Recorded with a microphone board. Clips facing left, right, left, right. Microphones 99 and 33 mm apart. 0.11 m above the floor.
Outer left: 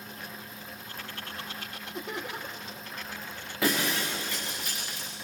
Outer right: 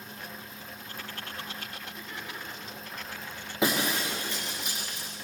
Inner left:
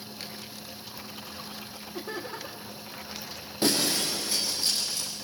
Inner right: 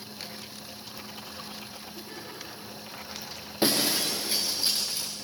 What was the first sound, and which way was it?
Laughter, 70° left (ahead or behind).